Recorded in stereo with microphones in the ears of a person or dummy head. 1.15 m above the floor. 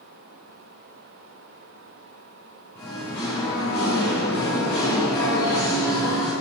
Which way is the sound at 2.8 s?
10° left (ahead or behind).